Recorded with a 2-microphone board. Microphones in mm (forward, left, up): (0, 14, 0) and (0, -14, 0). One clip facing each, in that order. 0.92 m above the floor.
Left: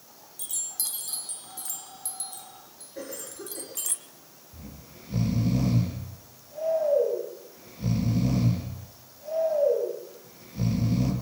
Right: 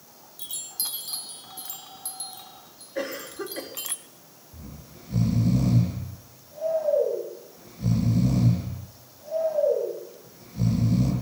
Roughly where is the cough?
Right.